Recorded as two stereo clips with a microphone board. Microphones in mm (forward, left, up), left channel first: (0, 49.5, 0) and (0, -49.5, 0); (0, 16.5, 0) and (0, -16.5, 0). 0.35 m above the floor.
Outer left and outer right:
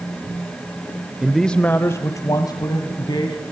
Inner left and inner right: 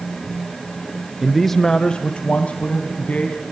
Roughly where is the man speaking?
Centre.